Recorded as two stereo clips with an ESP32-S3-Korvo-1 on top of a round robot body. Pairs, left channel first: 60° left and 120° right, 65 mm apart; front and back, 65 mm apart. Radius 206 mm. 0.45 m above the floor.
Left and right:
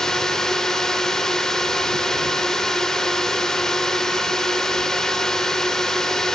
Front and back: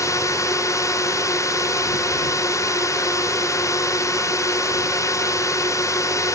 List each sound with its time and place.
0.0 s a drone: 20° right